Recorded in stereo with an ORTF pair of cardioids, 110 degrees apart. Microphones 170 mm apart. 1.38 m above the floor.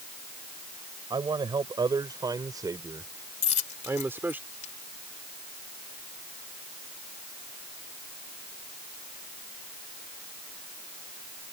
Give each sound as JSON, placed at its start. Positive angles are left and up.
{"t": 1.1, "sound": "a man speaking", "azimuth_deg": -25}
{"t": 3.4, "sound": "a dropped coin", "azimuth_deg": 50}